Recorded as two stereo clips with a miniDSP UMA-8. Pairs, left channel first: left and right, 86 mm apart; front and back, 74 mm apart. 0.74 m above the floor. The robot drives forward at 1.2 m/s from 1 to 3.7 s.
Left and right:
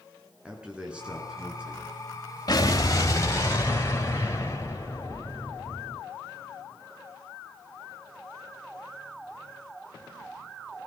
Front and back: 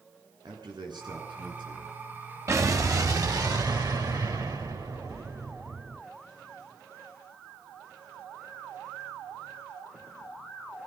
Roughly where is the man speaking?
Behind.